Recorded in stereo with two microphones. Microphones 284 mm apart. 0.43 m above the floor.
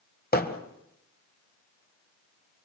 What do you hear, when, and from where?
0.3 s hammering: 35° left (ahead or behind), 1.8 m